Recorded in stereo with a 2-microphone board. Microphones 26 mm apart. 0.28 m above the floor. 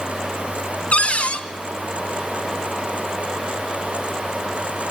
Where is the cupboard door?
55° left (ahead or behind), 1.1 m.